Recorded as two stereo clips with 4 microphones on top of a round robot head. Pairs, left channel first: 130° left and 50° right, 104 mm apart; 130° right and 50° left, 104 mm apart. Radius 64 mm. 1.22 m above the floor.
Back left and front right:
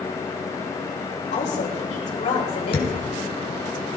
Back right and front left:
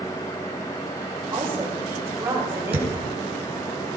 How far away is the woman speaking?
About 6 m.